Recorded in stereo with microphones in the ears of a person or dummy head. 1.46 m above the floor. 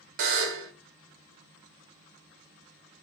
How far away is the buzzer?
About 0.5 m.